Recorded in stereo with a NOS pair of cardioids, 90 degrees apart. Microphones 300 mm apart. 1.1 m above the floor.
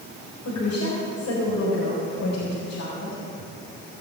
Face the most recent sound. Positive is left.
turn(degrees=65)